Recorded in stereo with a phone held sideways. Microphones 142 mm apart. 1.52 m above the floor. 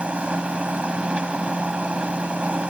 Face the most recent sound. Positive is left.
turn(degrees=-10)  # may be behind; listen again after turning